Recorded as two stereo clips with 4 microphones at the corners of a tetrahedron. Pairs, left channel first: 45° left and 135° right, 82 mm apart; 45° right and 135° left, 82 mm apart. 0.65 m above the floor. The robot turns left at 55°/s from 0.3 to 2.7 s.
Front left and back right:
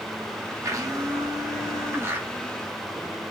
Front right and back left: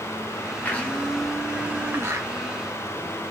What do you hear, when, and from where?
0.6 s a blender: 100° right, 1.2 m; by 2.3 s 165° left, 1.2 m